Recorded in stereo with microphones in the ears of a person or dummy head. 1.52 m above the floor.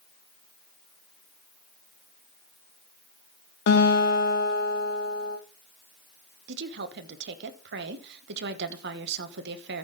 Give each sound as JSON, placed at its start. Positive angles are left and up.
{"t": 3.7, "sound": "a guitar", "side_deg": 65, "distance_m": 2.0}
{"t": 6.5, "sound": "a woman speaking", "side_deg": -65, "distance_m": 1.1}